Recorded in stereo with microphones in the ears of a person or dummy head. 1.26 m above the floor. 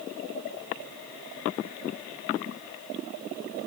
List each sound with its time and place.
Only background noise.